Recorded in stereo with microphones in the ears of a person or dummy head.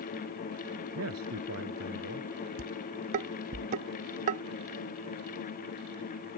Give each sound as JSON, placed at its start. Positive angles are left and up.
{"t": 0.9, "sound": "a man speaking", "side_deg": -75}
{"t": 2.6, "sound": "dishes clattering", "side_deg": -40}